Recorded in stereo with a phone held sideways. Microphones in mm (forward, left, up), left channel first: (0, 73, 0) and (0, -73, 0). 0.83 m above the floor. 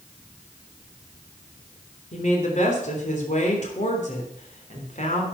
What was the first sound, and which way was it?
A woman speaking, 55° left (ahead or behind).